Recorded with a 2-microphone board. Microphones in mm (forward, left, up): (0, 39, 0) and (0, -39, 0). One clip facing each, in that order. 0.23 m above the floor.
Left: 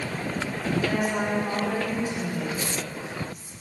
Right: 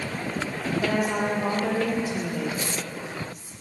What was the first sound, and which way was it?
A woman speaking, 80° right.